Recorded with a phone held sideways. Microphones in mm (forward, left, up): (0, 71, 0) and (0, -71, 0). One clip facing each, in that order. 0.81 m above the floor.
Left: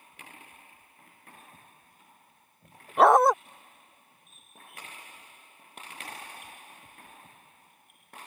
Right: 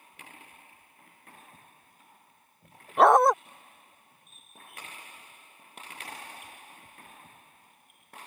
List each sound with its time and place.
3.0 s a dog barking: centre (ahead or behind)